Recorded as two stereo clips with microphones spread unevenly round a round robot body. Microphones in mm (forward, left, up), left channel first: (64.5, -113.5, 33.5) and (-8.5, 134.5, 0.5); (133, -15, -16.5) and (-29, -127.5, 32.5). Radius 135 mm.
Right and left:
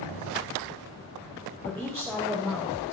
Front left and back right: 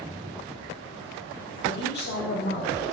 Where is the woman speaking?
25° left, 2.5 m.